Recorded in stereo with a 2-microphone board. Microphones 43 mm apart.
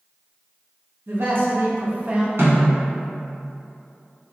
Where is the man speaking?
60° right (ahead or behind), 1.0 m; by 2.3 s 25° right (ahead or behind), 0.6 m.